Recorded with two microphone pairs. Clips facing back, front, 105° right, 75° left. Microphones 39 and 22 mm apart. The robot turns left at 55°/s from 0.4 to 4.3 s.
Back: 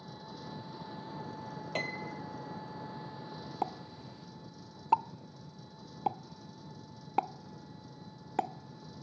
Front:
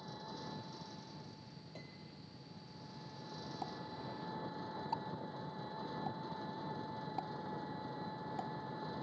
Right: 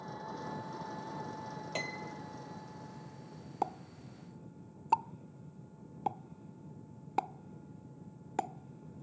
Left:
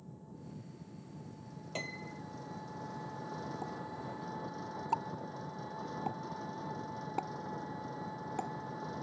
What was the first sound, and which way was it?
An engine running, 95° right.